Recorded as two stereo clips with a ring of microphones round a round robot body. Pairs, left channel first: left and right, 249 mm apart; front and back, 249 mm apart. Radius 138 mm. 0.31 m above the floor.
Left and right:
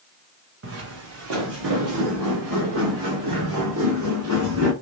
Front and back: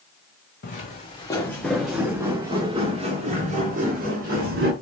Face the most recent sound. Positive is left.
turn(degrees=-130)